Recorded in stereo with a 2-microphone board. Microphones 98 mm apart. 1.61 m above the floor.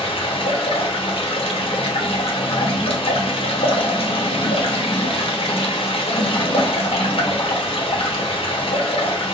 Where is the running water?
70° left (ahead or behind), 1.1 m.